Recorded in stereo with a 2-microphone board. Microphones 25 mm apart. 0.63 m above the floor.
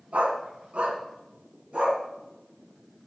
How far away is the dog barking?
About 3 m.